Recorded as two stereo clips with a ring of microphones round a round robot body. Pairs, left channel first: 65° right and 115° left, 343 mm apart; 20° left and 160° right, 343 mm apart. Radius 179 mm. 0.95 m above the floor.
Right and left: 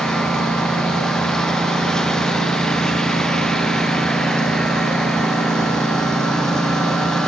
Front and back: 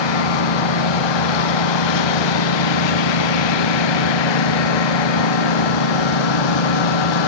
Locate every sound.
0.0 s a lawn mower: 20° left